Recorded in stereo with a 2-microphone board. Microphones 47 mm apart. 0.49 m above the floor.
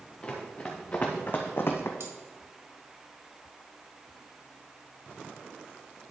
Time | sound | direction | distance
0.2 | running footsteps | 20° left (ahead or behind) | 2.5 m
2.0 | cutlery clinking | 70° right (ahead or behind) | 1.5 m